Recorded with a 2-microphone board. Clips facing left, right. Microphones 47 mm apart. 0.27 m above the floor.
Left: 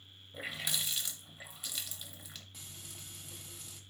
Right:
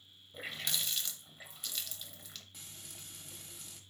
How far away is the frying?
About 1.0 m.